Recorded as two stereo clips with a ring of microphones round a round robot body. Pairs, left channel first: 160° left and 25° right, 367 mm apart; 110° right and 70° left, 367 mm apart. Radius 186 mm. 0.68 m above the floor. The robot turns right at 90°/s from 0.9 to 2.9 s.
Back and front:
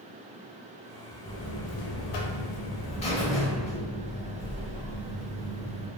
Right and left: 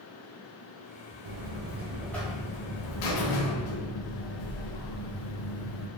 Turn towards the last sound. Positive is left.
turn(degrees=-130)